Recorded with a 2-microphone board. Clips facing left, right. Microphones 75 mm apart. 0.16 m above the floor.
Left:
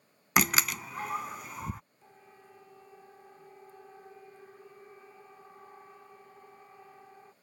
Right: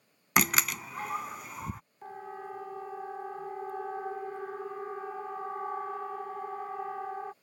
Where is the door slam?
Centre (ahead or behind).